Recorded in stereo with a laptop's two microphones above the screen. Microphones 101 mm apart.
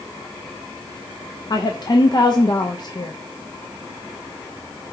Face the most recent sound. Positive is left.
turn(degrees=45)  # may be behind; listen again after turning